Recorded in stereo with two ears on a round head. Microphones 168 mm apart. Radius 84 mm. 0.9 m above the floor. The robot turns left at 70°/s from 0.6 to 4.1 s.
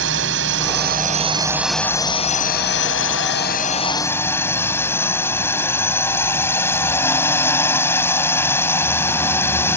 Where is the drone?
100° right; by 9.8 s 15° left.